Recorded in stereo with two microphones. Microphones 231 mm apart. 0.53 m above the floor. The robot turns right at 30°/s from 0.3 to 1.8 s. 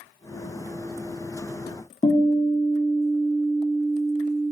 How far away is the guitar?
About 1.0 m.